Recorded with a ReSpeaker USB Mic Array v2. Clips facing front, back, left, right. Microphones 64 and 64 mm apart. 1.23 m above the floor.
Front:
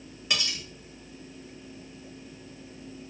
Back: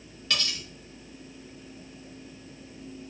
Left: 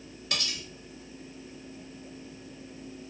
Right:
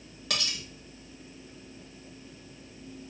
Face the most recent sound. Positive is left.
turn(degrees=-75)